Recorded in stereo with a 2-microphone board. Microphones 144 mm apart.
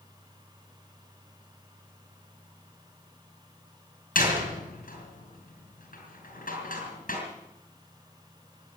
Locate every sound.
4.2 s a door slam: 75° left (ahead or behind), 5 m